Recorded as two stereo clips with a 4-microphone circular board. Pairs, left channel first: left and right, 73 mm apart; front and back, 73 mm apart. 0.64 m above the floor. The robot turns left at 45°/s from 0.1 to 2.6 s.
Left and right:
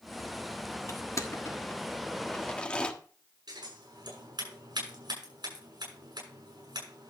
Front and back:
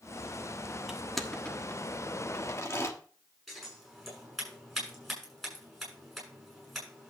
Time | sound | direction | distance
0.9 | crushing | 100° left | 1.3 m
3.5 | scissors | 90° right | 7.5 m